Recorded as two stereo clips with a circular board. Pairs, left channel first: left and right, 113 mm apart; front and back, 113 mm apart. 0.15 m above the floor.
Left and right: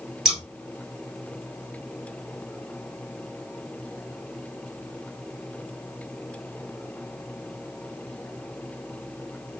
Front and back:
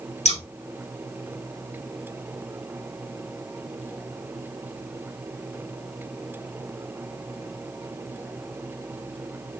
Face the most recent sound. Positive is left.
turn(degrees=0)